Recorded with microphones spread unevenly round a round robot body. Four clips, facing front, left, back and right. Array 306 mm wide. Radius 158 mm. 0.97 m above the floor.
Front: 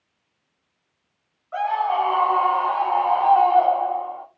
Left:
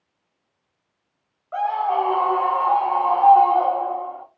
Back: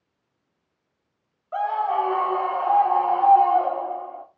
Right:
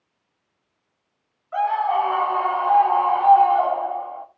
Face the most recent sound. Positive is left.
turn(degrees=110)